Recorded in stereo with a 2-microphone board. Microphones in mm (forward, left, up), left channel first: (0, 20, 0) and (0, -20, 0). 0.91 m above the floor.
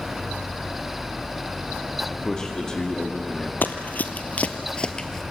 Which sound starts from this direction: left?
Running footsteps, at 3.6 s.